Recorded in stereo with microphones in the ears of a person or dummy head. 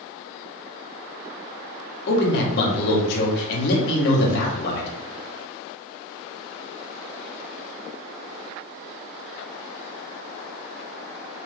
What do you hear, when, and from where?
2.1 s a man speaking: 55° left (ahead or behind), 1.1 m